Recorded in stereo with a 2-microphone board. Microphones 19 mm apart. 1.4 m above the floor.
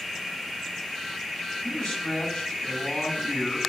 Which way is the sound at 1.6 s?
60° left (ahead or behind).